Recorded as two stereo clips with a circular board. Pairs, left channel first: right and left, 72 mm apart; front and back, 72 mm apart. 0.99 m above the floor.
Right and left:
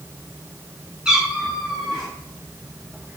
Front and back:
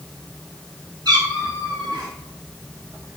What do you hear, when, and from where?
1.1 s a cat meowing: 170° left, 3.5 m; by 2.1 s 175° right, 3 m